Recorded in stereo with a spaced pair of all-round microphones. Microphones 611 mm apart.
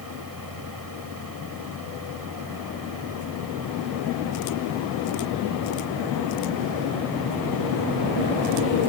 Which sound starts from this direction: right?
A fan, at 0.0 s.